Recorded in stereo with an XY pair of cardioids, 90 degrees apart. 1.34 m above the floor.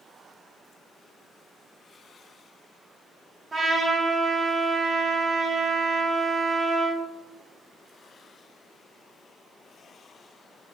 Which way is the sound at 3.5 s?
35° right.